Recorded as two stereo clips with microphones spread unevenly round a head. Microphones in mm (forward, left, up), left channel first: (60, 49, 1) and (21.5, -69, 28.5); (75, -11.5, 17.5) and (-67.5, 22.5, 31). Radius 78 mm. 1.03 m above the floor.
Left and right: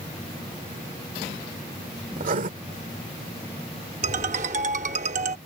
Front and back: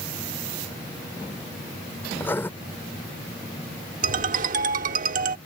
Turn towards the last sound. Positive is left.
turn(degrees=-155)